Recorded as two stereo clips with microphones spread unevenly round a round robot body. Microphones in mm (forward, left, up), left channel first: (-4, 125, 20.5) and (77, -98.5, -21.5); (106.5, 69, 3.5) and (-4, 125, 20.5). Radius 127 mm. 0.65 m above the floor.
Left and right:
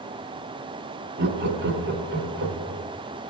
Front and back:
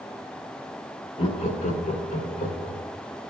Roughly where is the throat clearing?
I don't hear throat clearing.